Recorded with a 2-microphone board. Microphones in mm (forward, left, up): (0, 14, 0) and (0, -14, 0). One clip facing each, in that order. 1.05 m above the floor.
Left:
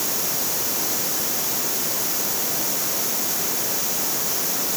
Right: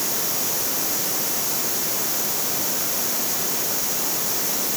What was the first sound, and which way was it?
Only background noise.